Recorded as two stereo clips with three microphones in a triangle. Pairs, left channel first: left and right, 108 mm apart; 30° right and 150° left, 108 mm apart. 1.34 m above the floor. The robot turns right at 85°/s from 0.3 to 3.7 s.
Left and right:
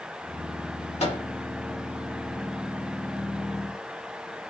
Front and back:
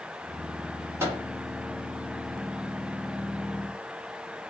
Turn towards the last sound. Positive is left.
turn(degrees=-45)